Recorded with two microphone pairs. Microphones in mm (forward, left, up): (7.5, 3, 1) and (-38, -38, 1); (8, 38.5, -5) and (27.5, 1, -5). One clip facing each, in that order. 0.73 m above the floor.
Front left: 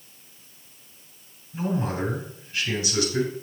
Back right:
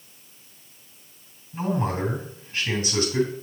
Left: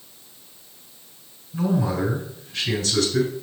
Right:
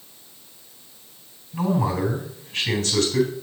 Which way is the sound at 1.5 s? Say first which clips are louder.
Back right 1 dB, even; 85° right.